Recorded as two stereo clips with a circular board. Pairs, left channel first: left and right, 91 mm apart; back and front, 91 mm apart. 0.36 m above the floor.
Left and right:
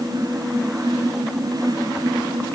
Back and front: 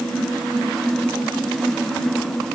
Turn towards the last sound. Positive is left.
No sound to turn to.